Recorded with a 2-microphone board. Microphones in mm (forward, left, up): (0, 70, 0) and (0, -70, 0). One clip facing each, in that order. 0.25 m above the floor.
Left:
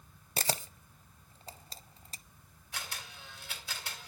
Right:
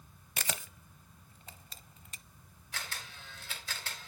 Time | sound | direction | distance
0.4 | a camera shutter | 35° left (ahead or behind) | 0.6 m
2.7 | a camera shutter | 10° left (ahead or behind) | 3 m